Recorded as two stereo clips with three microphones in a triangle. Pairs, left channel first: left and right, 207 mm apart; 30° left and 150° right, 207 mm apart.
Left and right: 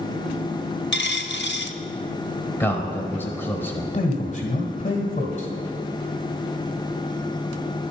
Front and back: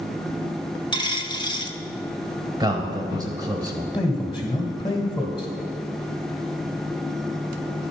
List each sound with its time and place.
0.9 s a dropped coin: 95° left, 0.5 m
2.6 s a man speaking: 160° left, 1.2 m
3.9 s a man speaking: 80° left, 1.7 m